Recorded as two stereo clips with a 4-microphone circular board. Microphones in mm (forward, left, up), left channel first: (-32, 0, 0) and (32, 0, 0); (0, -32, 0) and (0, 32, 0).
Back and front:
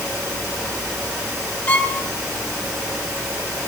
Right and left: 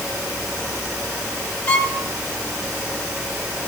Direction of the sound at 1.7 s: 135° right.